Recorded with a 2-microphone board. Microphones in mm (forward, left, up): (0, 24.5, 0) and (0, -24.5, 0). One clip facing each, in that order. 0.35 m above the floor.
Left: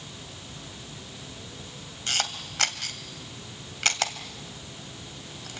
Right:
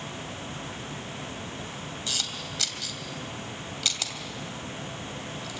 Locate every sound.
2.1 s a camera shutter: 55° left (ahead or behind), 2 m